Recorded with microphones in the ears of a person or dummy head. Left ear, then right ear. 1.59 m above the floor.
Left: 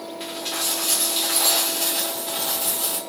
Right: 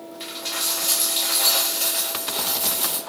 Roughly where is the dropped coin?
Centre.